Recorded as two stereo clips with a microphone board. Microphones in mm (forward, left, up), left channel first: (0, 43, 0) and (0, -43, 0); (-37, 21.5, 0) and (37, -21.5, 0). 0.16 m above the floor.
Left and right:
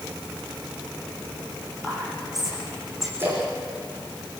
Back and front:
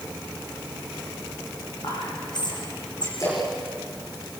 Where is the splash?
155° right, 8.5 m.